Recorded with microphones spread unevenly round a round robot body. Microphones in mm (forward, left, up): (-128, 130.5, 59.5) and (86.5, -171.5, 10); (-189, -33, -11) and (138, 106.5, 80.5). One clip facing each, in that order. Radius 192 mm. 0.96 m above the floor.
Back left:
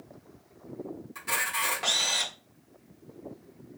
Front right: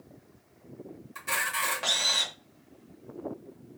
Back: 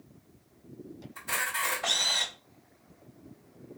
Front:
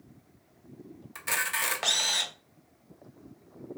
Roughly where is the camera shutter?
Ahead left.